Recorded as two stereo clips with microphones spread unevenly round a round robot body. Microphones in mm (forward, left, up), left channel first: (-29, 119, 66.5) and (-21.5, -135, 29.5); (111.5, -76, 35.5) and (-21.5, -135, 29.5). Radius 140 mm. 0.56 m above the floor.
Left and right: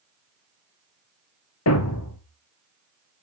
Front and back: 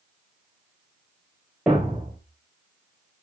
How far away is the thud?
About 1.4 m.